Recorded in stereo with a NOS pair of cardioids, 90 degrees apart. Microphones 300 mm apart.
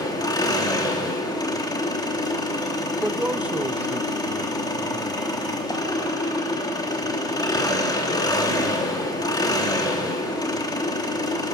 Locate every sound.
0.0 s an engine running: 15° left, 3 m
3.0 s a man speaking: 5° right, 1.2 m